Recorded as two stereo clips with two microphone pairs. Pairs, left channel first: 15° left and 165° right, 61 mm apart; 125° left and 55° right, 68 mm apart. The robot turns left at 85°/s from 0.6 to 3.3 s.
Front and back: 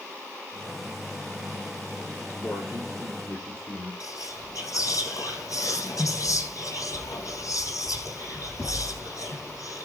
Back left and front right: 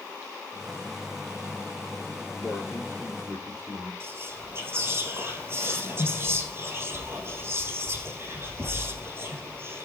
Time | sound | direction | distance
2.4 | a man speaking | 45° left | 8.5 m
4.0 | whispering | 5° right | 5 m